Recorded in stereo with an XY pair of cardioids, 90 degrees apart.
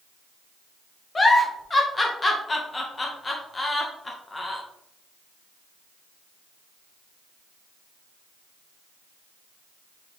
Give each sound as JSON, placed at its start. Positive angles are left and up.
{"t": 1.1, "sound": "a giggle", "azimuth_deg": 30, "distance_m": 1.5}